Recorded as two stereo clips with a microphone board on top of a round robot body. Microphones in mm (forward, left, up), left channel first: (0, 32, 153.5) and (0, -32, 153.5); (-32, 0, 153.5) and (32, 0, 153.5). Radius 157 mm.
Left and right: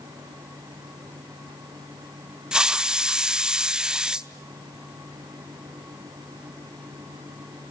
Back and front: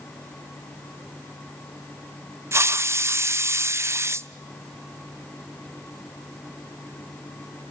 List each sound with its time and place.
2.5 s a hiss: 20° right, 0.9 m